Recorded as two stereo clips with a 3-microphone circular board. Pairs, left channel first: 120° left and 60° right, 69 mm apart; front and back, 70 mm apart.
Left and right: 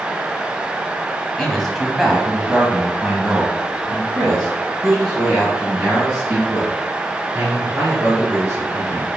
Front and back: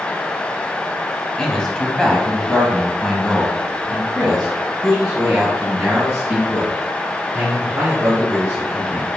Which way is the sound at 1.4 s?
50° left.